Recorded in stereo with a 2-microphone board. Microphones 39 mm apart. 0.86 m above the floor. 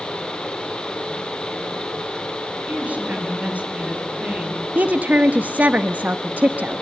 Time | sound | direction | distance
2.7 | a woman speaking | 40° right (ahead or behind) | 5 m
4.8 | a woman speaking | 50° right (ahead or behind) | 0.8 m